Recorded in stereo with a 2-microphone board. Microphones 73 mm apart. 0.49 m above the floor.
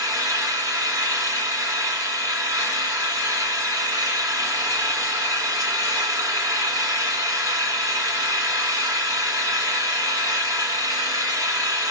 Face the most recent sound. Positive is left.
turn(degrees=-45)  # may be behind; listen again after turning